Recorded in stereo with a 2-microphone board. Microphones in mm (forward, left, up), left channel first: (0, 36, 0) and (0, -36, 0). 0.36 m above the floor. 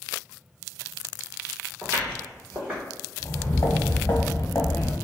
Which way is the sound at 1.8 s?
25° right (ahead or behind).